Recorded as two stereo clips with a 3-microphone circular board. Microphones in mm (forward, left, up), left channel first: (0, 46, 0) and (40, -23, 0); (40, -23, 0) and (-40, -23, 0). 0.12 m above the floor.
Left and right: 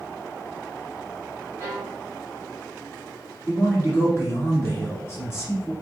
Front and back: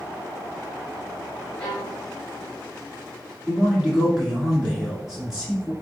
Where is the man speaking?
105° left, 1.6 m.